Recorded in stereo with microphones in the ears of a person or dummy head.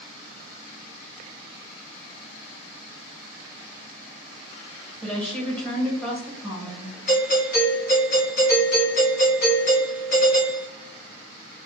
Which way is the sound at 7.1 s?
60° left (ahead or behind).